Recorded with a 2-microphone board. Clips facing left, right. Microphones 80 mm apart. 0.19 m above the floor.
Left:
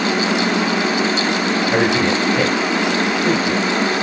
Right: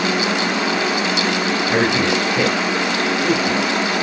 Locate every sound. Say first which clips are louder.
1.7 s a man speaking: even; centre (ahead or behind), 3 m